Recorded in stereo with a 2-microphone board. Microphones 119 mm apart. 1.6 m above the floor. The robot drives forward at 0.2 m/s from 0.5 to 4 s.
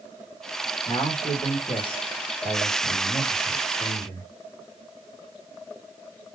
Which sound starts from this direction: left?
A man speaking, at 0.9 s.